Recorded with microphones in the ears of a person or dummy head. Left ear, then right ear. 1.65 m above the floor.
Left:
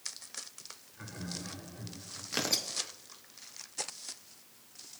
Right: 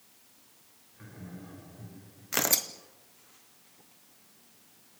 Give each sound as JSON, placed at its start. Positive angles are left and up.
{"t": 0.9, "sound": "laughter", "side_deg": 40, "distance_m": 6.5}
{"t": 2.3, "sound": "tearing paper", "side_deg": -20, "distance_m": 0.8}